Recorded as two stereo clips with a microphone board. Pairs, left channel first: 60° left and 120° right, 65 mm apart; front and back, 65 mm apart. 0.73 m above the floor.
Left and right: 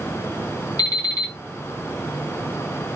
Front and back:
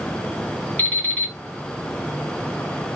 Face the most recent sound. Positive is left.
turn(degrees=65)